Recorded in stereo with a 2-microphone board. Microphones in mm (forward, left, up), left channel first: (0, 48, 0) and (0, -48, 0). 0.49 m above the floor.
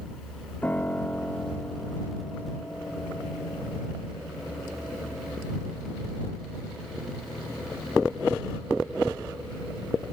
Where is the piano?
20° left (ahead or behind).